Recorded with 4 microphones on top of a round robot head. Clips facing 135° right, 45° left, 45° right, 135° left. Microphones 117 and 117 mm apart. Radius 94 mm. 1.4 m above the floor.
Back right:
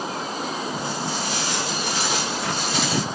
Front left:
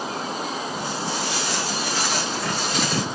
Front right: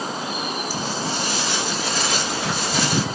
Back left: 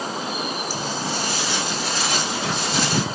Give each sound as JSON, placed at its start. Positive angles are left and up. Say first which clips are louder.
{"t": 0.7, "sound": "footsteps", "louder": "even, front right 1 dB", "azimuth_deg": -80, "distance_m": 1.5}